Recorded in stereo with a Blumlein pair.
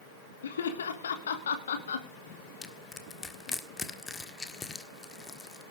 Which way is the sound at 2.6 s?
10° left.